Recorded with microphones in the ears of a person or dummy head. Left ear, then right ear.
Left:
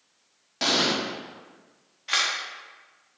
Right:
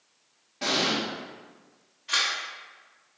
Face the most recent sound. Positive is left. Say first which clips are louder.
# left 1 dB
turn(degrees=25)  # may be behind; listen again after turning